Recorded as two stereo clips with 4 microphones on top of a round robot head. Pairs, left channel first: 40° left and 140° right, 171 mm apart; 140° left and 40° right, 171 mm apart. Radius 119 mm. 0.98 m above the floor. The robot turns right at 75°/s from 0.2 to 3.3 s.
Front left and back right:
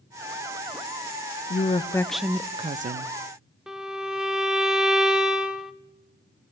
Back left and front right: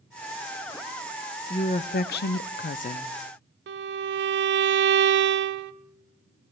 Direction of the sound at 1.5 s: 80° left.